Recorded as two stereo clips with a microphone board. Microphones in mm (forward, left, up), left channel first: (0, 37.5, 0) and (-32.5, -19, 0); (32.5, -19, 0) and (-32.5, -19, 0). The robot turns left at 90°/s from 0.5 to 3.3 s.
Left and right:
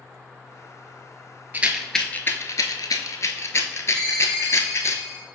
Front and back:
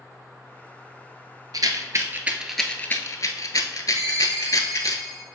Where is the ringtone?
140° left, 1.6 m.